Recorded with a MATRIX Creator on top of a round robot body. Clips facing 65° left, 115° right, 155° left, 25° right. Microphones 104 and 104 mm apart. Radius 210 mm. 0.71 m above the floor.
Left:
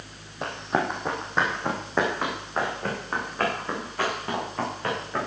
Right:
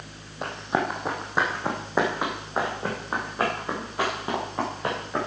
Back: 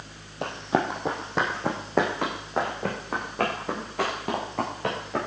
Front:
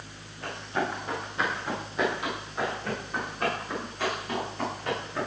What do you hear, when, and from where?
0.4 s running footsteps: 160° left, 2.5 m; by 5.3 s 175° left, 7.5 m